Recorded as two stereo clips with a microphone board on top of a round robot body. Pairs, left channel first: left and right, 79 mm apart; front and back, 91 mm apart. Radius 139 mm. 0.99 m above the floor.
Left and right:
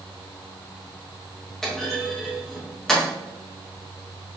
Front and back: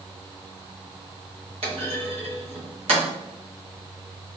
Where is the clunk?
175° left, 3 m.